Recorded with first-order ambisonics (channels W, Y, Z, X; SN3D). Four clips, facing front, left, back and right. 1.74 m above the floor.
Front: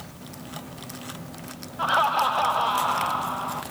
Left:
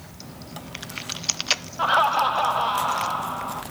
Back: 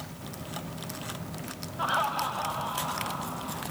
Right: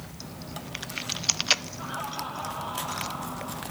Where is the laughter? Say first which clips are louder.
Left 15 dB, front 7 dB; 75° left, 0.6 m; by 3.6 s 40° left, 2 m.